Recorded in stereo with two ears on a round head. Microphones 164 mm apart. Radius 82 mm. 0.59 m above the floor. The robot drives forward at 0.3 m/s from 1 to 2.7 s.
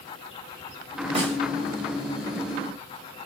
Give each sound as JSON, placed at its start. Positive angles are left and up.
{"t": 1.1, "sound": "a snare drum", "side_deg": -30, "distance_m": 1.1}